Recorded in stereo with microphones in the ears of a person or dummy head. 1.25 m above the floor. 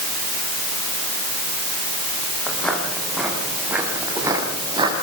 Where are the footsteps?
10° left (ahead or behind), 6 m; by 5.0 s 20° right (ahead or behind), 6.5 m.